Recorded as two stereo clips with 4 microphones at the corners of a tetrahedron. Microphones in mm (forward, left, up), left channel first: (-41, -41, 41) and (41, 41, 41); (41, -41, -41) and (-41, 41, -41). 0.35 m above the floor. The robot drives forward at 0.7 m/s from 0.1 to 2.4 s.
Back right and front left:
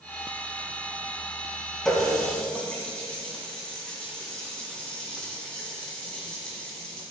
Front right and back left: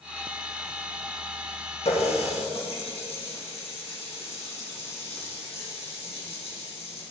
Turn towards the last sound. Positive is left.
turn(degrees=-55)